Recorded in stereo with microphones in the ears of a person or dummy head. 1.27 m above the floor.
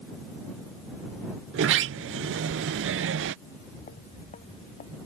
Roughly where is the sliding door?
Right.